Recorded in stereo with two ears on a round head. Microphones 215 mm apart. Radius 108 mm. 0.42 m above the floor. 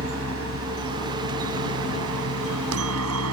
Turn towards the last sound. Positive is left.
turn(degrees=-70)  # may be behind; listen again after turning